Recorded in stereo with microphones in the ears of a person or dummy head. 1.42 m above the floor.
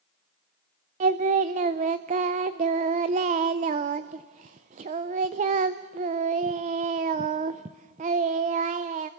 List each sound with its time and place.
1.0 s singing: 25° right (ahead or behind), 0.5 m